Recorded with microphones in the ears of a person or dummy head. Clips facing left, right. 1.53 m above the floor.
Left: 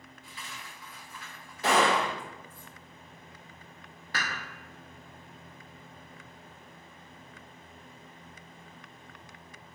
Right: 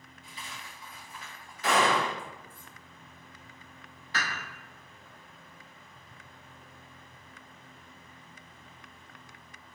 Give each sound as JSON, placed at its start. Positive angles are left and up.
{"t": 0.2, "sound": "a dropped coin", "side_deg": -30, "distance_m": 1.1}
{"t": 1.6, "sound": "a gunshot", "side_deg": 25, "distance_m": 0.8}
{"t": 4.1, "sound": "dishes clattering", "side_deg": 45, "distance_m": 1.2}